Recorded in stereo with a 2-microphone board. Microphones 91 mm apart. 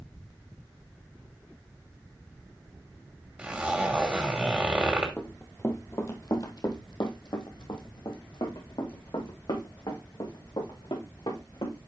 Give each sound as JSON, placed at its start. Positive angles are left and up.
{"t": 3.4, "sound": "a zipper", "side_deg": -15, "distance_m": 2.5}
{"t": 5.2, "sound": "running footsteps", "side_deg": 15, "distance_m": 1.7}